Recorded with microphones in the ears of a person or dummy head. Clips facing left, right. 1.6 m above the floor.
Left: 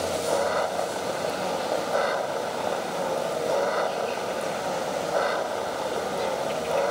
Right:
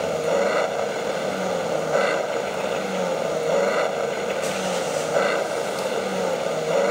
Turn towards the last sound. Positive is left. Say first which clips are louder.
# right 4 dB
turn(degrees=-40)  # may be behind; listen again after turning